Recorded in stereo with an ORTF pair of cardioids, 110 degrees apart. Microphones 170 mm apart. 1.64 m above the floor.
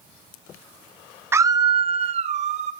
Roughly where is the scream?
Ahead.